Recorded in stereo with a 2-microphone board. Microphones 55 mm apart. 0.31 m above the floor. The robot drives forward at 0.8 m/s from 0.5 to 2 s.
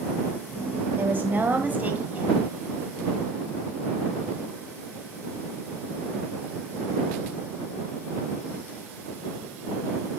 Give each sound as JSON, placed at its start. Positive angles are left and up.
{"t": 1.0, "sound": "a woman speaking", "side_deg": -40, "distance_m": 1.4}